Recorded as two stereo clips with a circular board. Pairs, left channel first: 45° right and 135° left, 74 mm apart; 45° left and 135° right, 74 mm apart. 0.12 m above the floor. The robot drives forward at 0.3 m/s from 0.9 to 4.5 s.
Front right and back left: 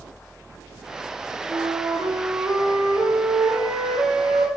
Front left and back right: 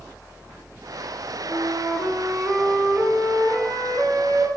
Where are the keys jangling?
No keys jangling in this recording.